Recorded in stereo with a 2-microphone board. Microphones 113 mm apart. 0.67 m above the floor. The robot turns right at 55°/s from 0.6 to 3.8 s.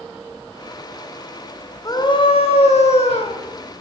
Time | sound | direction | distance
1.9 | a scream | 35° left | 3.5 m